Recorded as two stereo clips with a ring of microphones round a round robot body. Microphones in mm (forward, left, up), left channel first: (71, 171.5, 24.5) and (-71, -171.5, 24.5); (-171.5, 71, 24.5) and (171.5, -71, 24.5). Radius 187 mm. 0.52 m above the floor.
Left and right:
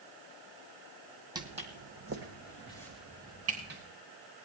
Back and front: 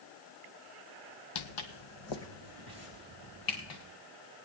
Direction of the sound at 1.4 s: 170° left.